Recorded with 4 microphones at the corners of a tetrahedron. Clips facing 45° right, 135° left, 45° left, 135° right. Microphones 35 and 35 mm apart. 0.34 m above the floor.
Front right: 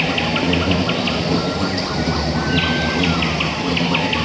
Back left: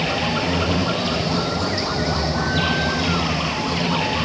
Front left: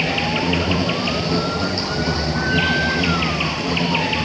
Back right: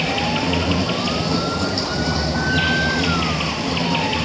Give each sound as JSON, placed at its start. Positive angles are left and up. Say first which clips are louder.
{"t": 0.0, "sound": "an insect", "louder": "front right 3 dB, even", "azimuth_deg": -20, "distance_m": 2.0}